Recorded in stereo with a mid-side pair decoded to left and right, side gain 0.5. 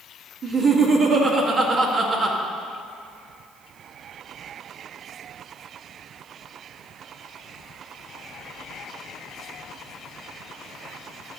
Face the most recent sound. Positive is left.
turn(degrees=-55)